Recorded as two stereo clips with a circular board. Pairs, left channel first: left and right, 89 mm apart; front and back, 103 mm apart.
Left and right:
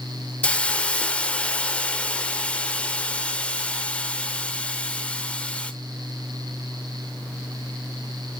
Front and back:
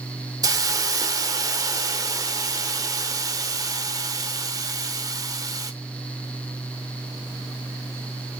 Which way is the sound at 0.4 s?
160° left.